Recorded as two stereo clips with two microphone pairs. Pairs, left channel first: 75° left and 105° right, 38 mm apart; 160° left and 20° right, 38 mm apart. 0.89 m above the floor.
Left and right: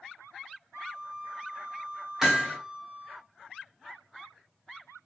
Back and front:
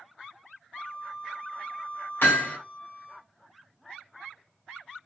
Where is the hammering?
175° left, 2 m.